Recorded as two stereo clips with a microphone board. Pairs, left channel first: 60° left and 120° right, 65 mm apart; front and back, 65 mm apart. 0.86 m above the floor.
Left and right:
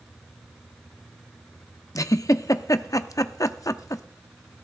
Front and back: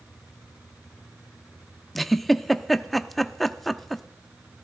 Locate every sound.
1.9 s a giggle: 90° left, 0.5 m